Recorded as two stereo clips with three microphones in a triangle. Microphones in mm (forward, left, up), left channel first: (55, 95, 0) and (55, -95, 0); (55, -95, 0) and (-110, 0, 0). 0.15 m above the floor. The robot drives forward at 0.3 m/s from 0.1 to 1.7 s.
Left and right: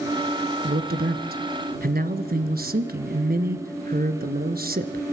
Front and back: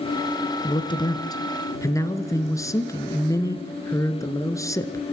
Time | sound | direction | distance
0.6 | a man speaking | 85° right | 1.6 m